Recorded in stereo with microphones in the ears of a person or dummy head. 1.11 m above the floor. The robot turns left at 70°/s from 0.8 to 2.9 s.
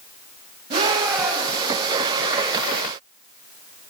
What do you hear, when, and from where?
0.7 s a shout: 145° right, 9 m; by 1.8 s 145° left, 9 m